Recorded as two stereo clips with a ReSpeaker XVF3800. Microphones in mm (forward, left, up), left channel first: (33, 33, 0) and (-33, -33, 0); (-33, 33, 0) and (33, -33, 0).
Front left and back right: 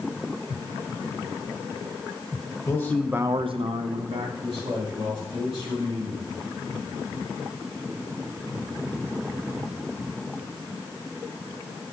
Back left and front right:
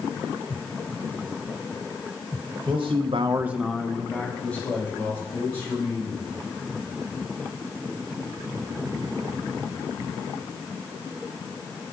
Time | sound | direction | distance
2.7 | a man speaking | 15° right | 0.9 m